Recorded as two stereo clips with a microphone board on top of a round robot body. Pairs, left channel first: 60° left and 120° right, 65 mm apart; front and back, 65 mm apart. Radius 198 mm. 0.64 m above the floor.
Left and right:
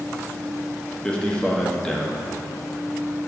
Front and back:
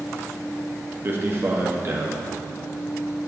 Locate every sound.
1.0 s a man speaking: 135° left, 1.7 m